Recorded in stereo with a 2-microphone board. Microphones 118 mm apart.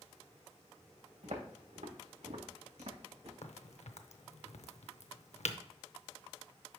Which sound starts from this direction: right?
Footsteps, at 1.2 s.